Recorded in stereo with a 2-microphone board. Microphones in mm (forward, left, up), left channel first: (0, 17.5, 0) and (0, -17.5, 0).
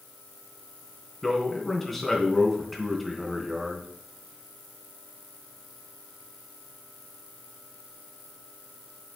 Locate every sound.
1.2 s a man speaking: 5° left (ahead or behind), 3 m